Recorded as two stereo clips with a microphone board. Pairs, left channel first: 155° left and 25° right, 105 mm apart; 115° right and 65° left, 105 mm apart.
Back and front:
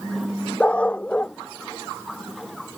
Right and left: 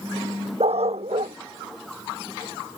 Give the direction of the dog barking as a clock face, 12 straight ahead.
9 o'clock.